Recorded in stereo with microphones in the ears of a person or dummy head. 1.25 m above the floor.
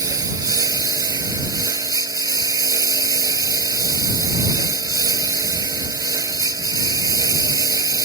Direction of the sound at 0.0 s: 15° right (ahead or behind).